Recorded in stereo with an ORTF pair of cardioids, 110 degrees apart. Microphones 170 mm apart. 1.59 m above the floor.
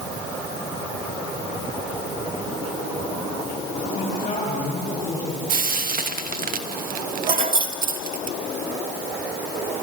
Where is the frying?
55° right, 1.1 m.